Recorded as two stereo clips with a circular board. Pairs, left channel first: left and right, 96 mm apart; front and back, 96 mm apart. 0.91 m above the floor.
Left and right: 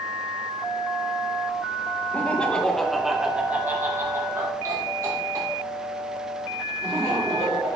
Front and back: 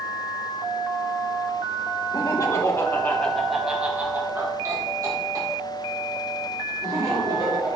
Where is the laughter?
25° left, 1.2 m; by 7.8 s 140° right, 3 m.